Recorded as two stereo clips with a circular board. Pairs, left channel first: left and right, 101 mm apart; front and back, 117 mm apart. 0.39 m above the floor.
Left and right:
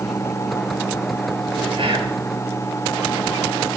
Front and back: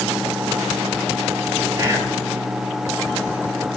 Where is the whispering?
115° right, 8 m.